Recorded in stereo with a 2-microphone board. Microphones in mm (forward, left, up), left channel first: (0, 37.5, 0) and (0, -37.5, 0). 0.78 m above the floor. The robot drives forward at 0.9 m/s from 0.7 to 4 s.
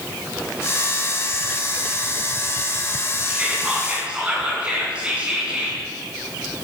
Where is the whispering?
15° right (ahead or behind), 5.5 m.